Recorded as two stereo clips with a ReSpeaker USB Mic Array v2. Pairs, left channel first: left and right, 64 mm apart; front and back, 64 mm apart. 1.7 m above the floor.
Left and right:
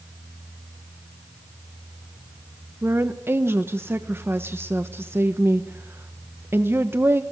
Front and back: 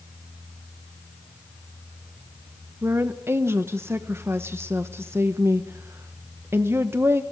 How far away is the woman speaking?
About 1.2 m.